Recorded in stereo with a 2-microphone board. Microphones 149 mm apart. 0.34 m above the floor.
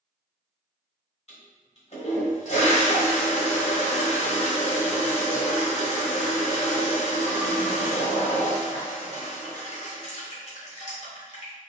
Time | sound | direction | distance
1.3 | a toilet flushing | 45° left (ahead or behind) | 1.3 m